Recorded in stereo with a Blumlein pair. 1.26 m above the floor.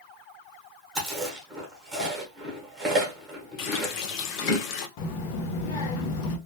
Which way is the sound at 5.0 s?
45° left.